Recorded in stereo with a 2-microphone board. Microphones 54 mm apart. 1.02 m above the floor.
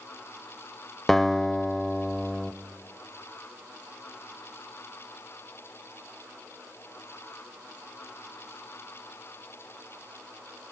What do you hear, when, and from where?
1.1 s a guitar: 5° left (ahead or behind), 1.0 m